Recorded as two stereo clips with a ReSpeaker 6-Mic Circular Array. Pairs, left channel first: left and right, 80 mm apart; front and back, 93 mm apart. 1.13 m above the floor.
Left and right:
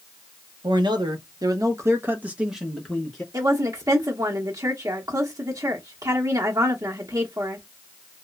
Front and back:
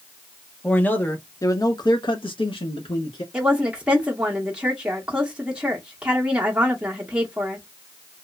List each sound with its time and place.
0.6 s a man speaking: 75° right, 1.0 m; by 3.2 s 10° left, 1.0 m
3.3 s a woman speaking: 105° right, 0.7 m